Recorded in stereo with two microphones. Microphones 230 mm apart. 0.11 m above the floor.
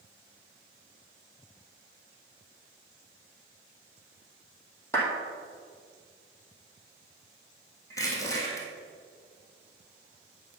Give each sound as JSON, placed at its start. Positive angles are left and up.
{"t": 4.9, "sound": "a clap", "side_deg": 10, "distance_m": 3.5}
{"t": 7.9, "sound": "crushing", "side_deg": 15, "distance_m": 2.5}